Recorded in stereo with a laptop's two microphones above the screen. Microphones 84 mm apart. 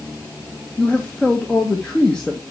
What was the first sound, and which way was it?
A man speaking, 15° left (ahead or behind).